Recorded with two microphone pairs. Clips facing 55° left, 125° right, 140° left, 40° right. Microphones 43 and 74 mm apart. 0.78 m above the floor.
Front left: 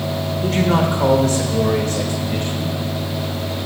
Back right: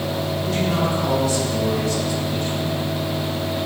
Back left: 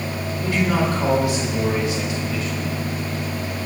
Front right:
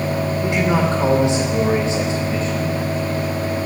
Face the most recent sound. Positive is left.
turn(degrees=15)